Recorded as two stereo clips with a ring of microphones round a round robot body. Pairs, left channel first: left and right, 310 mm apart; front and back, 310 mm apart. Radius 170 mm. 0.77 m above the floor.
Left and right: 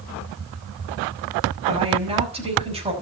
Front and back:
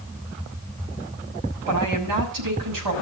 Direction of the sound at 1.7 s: 160° right.